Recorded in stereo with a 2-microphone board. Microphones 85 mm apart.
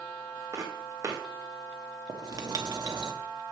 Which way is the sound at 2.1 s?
50° right (ahead or behind).